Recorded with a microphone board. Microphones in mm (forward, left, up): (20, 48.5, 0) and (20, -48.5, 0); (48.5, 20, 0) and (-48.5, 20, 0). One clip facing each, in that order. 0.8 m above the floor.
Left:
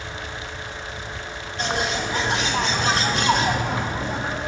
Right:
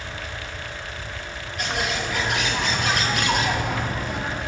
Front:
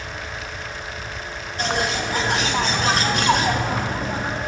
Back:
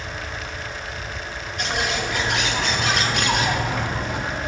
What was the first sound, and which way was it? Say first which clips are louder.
A bird: left 2 dB, front 2 dB; 40° left.